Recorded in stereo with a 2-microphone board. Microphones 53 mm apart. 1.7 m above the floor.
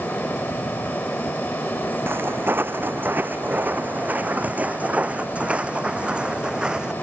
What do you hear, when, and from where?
2.1 s footsteps: 40° right (ahead or behind); by 6.9 s 15° right (ahead or behind)